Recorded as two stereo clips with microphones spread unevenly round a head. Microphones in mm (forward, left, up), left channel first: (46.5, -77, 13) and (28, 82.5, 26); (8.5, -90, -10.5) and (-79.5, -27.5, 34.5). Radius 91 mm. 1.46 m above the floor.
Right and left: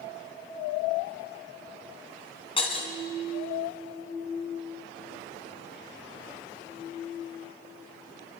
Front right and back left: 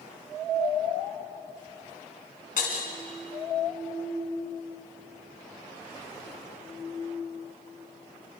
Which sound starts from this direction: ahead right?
Breaking glass, at 2.6 s.